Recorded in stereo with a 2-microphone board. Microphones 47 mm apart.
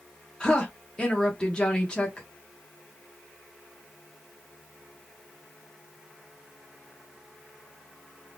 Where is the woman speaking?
20° left (ahead or behind), 0.9 m.